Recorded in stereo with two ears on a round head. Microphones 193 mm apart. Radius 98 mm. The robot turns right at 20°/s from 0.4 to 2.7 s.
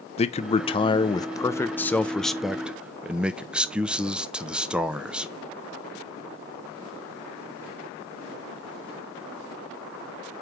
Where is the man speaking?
140° left, 0.5 m; by 5.3 s 175° right, 0.5 m.